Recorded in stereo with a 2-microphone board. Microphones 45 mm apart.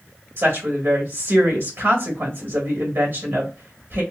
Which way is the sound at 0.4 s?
65° right (ahead or behind).